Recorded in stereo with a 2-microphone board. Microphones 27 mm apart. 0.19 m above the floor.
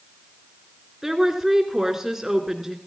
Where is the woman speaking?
15° right (ahead or behind), 2 m.